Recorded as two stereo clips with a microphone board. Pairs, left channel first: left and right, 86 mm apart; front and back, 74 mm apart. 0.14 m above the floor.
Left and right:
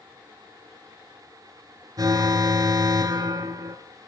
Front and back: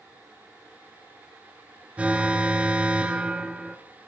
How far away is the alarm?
About 1.5 m.